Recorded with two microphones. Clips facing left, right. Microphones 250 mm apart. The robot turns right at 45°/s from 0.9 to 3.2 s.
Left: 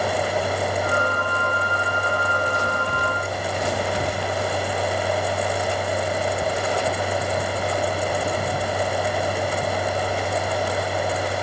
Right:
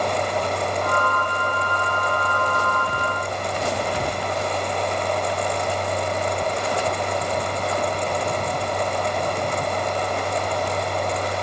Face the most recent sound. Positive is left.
No sound to turn to.